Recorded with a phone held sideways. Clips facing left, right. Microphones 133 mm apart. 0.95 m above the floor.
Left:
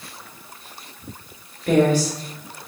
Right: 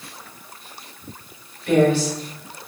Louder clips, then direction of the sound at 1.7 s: Even; 40° left (ahead or behind).